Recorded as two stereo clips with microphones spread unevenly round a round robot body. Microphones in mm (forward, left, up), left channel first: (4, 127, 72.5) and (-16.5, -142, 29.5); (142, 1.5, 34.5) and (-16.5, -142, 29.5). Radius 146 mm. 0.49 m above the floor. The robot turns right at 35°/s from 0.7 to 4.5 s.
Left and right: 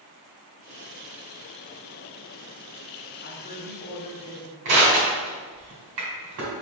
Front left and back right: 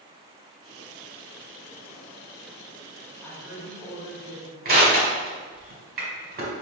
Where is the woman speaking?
120° left, 1.3 m; by 4.5 s 165° left, 1.3 m.